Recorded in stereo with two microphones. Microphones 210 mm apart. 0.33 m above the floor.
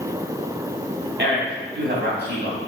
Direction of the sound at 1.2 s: 60° right (ahead or behind).